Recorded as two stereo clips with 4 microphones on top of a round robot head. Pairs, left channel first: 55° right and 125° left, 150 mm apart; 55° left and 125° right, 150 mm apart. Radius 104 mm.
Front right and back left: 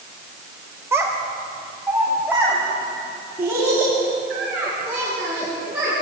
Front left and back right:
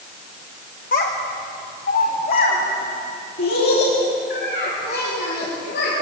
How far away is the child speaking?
About 1.6 m.